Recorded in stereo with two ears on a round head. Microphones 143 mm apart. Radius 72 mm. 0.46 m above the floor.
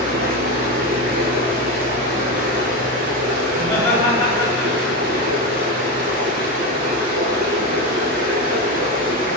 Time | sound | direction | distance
0.0 | running water | 55° right (ahead or behind) | 0.8 m
3.5 | laughter | centre (ahead or behind) | 2.0 m